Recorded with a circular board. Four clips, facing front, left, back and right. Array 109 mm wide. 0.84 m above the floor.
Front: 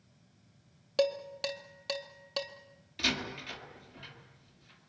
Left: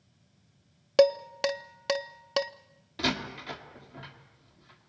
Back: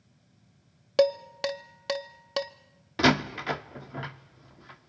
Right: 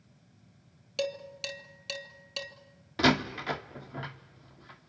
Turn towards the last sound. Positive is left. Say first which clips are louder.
# right 6 dB, back 13 dB
turn(degrees=-155)